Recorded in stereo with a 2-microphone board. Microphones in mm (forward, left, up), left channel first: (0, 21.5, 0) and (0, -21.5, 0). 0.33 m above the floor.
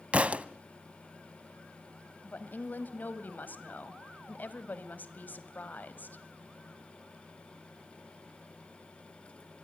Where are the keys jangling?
No keys jangling in this recording.